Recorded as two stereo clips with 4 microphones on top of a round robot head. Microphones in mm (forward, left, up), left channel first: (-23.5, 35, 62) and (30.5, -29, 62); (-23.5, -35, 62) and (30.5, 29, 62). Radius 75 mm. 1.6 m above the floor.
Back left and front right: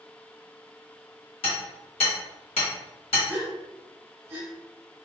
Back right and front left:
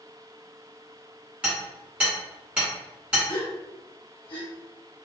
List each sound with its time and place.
1.4 s hammering: 120° left, 1.7 m
3.3 s a gasp: 110° right, 1.3 m